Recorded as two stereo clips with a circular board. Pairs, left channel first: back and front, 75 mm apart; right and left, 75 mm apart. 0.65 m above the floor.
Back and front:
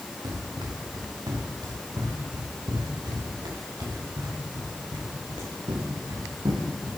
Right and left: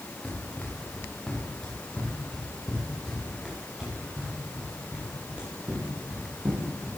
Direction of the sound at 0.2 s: 20° right.